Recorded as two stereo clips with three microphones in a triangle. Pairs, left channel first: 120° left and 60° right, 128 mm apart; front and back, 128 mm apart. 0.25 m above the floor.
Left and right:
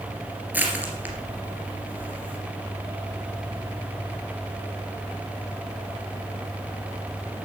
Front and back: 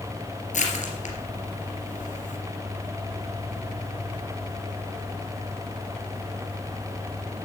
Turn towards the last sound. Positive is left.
turn(degrees=15)